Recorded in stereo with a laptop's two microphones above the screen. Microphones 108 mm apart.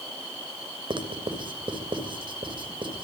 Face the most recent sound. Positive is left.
turn(degrees=-50)  # may be behind; listen again after turning